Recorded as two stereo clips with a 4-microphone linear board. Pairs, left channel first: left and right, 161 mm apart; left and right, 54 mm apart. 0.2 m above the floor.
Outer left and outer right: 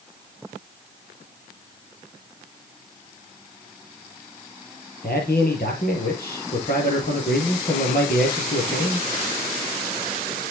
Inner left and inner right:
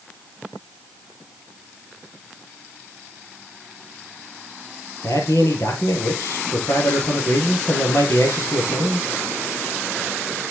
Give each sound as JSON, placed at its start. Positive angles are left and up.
{"t": 5.0, "sound": "a man speaking", "side_deg": 70, "distance_m": 5.0}